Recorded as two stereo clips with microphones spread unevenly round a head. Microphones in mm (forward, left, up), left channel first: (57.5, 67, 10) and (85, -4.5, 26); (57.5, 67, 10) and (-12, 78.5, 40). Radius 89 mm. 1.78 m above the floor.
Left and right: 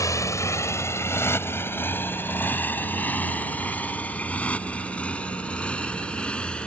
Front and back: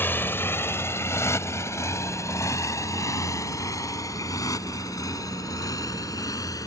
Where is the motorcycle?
60° left; by 6.7 s 30° left.